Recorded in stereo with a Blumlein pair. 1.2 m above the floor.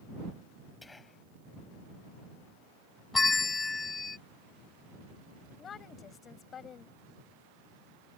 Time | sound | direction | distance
0.8 | whispering | 10° left | ?
3.1 | a bell | 15° left | ?
5.6 | a woman speaking | 25° left | ?